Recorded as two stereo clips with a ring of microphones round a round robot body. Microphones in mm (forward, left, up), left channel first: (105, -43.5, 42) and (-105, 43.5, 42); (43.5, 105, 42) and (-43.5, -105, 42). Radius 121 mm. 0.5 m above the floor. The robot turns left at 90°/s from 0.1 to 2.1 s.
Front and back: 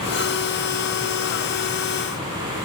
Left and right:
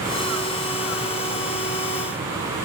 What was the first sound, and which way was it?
Only background noise.